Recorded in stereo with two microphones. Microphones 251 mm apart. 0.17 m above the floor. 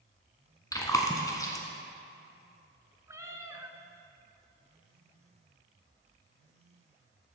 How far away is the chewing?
About 1.1 m.